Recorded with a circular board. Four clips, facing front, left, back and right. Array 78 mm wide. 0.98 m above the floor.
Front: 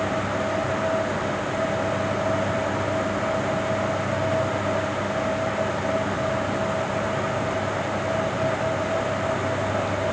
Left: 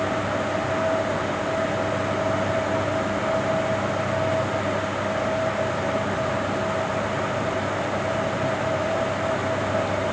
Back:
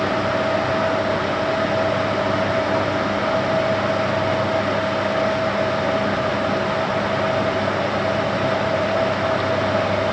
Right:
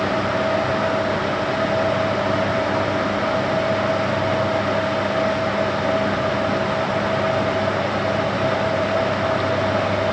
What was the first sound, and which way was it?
Only background noise.